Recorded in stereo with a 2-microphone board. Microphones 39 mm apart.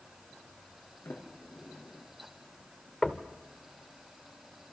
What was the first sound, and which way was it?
A sliding door, 80° left.